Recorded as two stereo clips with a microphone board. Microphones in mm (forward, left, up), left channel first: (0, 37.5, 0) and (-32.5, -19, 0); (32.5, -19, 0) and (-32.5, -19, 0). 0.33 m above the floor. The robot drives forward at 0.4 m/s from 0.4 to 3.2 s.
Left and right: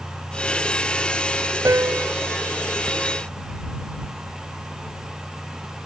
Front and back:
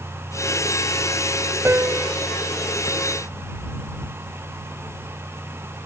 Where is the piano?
135° right; by 2.1 s 150° right.